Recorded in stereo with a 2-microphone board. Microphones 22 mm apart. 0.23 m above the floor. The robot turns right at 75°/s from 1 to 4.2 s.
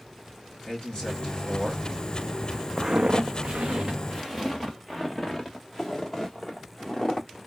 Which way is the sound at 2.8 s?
25° right (ahead or behind).